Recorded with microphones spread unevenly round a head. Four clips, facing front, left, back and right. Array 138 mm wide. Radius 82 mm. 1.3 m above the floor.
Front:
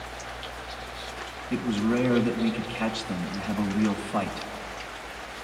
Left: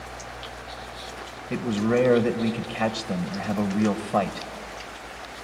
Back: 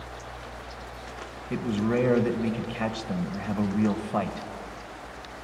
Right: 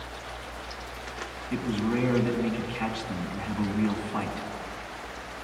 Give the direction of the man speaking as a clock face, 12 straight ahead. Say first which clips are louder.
Left 5 dB, front 1 dB; 8 o'clock.